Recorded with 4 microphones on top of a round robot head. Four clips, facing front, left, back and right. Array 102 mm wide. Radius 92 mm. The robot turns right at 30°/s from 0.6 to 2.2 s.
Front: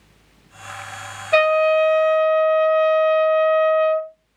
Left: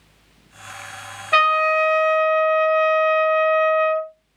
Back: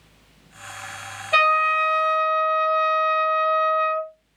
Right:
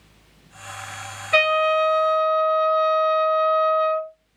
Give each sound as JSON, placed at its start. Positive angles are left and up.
{"t": 1.3, "sound": "a trumpet", "azimuth_deg": 85, "distance_m": 3.0}